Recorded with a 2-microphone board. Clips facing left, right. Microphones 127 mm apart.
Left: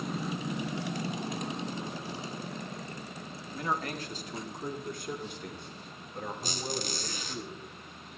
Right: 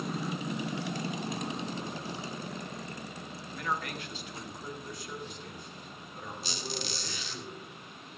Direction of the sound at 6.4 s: 45° left (ahead or behind).